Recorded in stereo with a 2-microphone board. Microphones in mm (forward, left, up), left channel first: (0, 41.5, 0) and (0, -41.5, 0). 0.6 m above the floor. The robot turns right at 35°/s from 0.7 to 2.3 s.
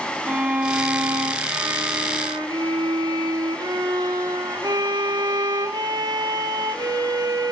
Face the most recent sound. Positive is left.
turn(degrees=-105)